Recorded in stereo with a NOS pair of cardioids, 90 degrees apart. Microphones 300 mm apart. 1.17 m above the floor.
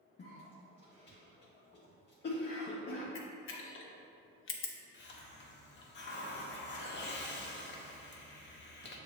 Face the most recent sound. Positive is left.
turn(degrees=40)